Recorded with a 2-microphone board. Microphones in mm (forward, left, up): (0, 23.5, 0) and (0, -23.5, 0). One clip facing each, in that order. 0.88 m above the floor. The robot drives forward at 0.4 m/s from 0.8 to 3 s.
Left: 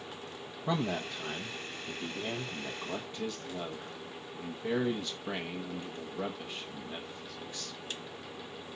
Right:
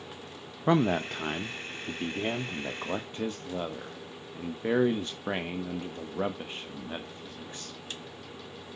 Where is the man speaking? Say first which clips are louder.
Right 8 dB; 45° right (ahead or behind), 0.7 m; by 7.8 s 30° right (ahead or behind), 1.0 m.